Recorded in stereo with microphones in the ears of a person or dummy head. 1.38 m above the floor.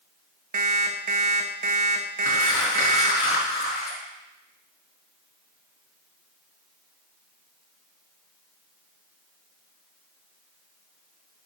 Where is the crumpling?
50° left (ahead or behind), 4 m.